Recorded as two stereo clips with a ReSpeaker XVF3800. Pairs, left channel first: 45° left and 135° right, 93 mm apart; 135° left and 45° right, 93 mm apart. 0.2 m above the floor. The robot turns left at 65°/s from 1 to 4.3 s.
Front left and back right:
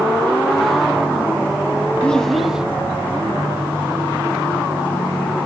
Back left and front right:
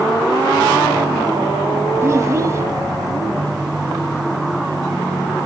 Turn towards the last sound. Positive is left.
turn(degrees=-170)